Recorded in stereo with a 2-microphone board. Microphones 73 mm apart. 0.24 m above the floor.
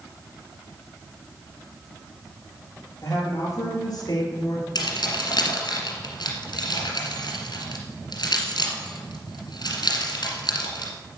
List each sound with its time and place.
3.0 s a woman speaking: 50° left (ahead or behind), 5.5 m; by 4.7 s 60° left (ahead or behind), 4 m
4.8 s keys jangling: 75° left (ahead or behind), 2.5 m